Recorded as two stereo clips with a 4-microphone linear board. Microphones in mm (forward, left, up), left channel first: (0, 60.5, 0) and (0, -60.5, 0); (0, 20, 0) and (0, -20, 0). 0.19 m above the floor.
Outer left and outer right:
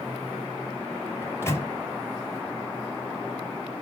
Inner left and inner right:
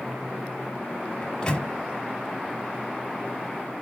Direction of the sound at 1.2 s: 20° left (ahead or behind).